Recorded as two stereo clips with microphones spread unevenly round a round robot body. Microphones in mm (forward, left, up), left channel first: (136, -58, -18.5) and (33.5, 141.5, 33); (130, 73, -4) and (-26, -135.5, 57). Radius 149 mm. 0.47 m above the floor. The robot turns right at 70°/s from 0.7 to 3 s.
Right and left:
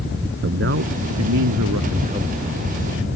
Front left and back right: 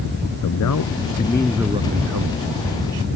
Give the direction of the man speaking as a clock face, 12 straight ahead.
9 o'clock.